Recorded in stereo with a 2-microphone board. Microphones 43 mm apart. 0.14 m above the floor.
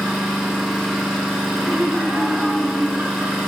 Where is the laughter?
50° right (ahead or behind), 1.7 m.